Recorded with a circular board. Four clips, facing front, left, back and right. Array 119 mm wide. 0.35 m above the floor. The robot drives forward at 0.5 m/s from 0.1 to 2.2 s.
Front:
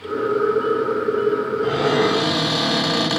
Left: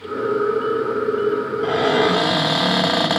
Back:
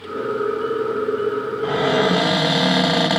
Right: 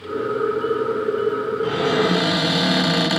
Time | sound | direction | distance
1.6 | a cupboard door | 115° left | 1.4 m